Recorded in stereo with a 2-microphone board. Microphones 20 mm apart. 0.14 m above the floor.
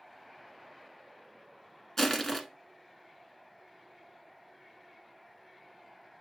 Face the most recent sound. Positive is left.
turn(degrees=20)  # may be behind; listen again after turning